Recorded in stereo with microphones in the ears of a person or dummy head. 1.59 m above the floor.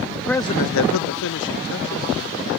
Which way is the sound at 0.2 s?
10° right (ahead or behind).